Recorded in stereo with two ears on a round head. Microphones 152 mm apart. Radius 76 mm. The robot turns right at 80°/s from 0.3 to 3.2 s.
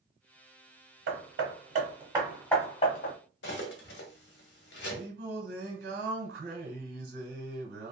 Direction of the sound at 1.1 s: 70° right (ahead or behind).